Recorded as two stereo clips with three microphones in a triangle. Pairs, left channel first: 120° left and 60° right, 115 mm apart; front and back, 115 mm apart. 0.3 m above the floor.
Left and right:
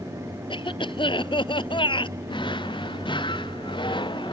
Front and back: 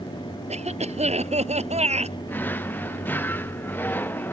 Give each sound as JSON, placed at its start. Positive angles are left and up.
{"t": 0.5, "sound": "a cough", "azimuth_deg": 165}
{"t": 2.3, "sound": "a drawer", "azimuth_deg": 75}